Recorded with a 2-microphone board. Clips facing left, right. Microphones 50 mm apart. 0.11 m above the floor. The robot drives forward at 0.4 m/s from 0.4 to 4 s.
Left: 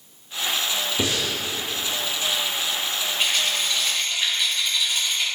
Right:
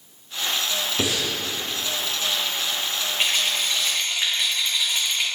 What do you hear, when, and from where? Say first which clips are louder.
1.0 s breathing: even; 20° right (ahead or behind), 4.5 m
3.2 s a rattle: right 1 dB; 30° right (ahead or behind), 6 m; by 5.2 s 25° right (ahead or behind), 6.5 m